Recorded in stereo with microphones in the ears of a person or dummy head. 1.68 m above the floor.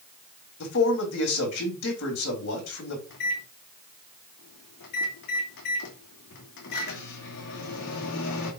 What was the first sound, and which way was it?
A man speaking, 70° left (ahead or behind).